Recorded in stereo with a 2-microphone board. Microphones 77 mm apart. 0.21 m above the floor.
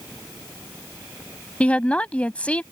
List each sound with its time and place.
1.6 s a woman speaking: 15° left (ahead or behind)